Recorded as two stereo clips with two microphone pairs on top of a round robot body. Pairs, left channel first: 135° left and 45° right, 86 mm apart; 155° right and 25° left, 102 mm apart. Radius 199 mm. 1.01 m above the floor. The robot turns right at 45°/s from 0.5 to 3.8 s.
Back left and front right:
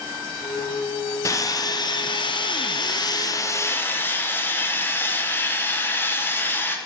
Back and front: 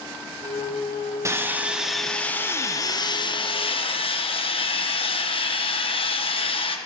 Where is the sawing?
85° left, 1.1 m; by 6.8 s 160° right, 1.1 m.